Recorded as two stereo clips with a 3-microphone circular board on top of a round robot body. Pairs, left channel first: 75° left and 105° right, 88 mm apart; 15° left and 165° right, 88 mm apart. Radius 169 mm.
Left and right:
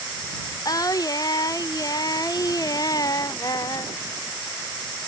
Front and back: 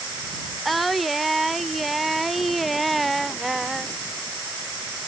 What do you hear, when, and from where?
0.7 s singing: 105° left